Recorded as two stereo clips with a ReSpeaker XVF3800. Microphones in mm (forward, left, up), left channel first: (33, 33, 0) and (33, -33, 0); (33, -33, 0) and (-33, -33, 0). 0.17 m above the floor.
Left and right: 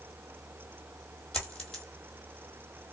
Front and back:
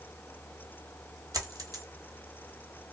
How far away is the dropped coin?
About 1.2 m.